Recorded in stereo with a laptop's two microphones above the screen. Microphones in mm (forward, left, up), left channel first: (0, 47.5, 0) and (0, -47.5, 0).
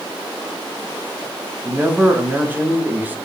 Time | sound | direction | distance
1.6 | a man speaking | 15° right (ahead or behind) | 1.0 m